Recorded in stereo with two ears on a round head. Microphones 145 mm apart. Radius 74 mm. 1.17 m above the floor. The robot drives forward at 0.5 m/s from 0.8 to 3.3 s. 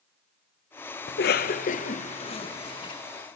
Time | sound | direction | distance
1.1 | a cough | 75° left (ahead or behind) | 0.6 m